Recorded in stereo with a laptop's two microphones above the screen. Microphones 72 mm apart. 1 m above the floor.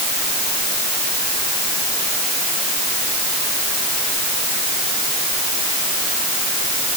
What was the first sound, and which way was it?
Only background noise.